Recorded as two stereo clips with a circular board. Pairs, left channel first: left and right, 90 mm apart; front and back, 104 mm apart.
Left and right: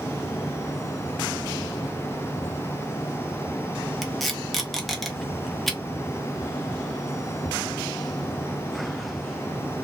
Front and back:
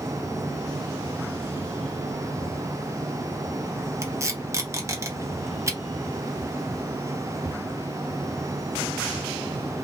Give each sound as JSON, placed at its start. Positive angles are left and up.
{"t": 4.0, "sound": "tape being pulled", "azimuth_deg": 175, "distance_m": 0.7}